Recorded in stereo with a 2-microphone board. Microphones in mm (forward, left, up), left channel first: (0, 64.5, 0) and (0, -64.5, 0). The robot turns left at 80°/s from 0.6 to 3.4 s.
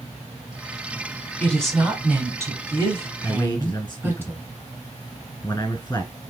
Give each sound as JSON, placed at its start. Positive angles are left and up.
{"t": 1.4, "sound": "a woman speaking", "side_deg": 10, "distance_m": 1.1}
{"t": 3.2, "sound": "a man speaking", "side_deg": 15, "distance_m": 1.3}